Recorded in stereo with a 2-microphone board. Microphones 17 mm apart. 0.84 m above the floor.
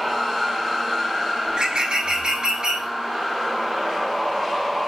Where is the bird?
55° right (ahead or behind), 5 m.